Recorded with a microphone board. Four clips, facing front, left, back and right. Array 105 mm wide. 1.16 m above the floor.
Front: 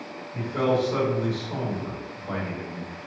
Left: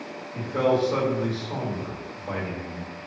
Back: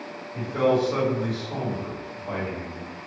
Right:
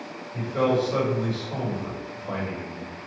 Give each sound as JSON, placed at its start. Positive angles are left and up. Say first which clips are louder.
{"t": 0.3, "sound": "a man speaking", "louder": "even, back 2 dB", "azimuth_deg": 100, "distance_m": 1.9}